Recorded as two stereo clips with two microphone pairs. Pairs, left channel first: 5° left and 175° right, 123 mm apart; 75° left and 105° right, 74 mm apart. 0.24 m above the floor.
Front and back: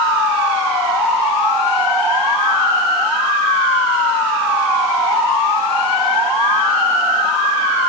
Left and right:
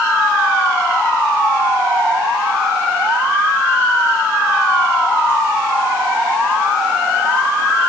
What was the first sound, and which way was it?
Only background noise.